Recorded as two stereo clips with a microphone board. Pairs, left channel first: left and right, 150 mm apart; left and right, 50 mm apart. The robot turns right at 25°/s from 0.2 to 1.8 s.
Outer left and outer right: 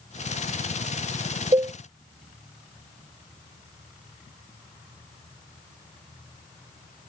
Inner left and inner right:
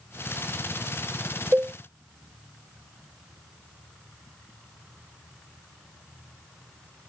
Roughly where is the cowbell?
Right.